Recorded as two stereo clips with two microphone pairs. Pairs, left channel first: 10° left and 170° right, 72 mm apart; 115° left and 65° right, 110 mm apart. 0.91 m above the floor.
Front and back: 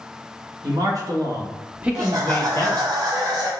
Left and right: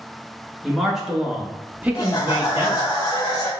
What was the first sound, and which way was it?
A man speaking, 155° right.